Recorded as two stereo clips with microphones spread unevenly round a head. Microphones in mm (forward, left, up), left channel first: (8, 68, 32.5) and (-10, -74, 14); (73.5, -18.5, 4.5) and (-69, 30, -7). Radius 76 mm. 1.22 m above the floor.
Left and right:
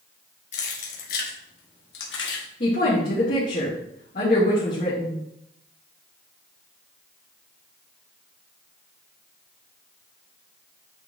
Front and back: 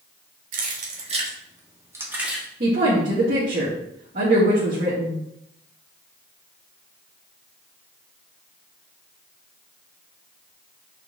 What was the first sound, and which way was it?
Keys jangling, 125° left.